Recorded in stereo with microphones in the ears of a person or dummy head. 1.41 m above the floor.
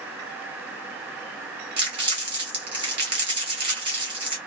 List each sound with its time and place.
1.8 s crumpling: 25° right (ahead or behind), 1.0 m